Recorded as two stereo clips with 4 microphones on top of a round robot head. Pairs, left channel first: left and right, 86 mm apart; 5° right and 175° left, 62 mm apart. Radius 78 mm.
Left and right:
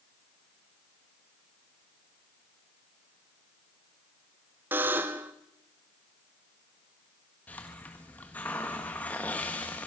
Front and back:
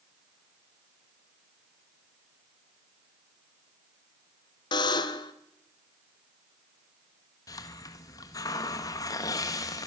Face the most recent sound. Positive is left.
turn(degrees=15)